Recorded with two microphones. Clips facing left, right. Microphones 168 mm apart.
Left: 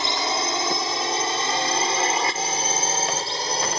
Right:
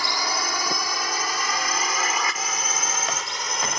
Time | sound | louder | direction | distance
0.0 | a drone | left 3 dB | 25° left (ahead or behind) | ?